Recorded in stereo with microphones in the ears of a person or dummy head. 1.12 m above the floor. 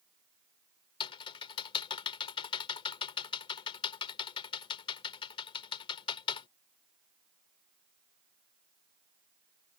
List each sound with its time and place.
1.0 s typing on a keyboard: 30° left (ahead or behind)